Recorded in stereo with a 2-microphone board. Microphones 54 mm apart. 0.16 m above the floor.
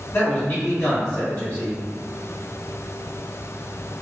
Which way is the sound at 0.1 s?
40° left (ahead or behind).